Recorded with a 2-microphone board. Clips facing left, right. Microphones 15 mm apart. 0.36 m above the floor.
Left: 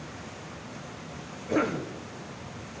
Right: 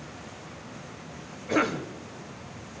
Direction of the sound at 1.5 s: 35° right (ahead or behind).